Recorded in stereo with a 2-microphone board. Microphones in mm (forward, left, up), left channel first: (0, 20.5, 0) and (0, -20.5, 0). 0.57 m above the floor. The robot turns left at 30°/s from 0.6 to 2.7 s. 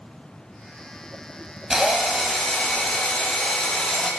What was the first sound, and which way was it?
A drill, 170° right.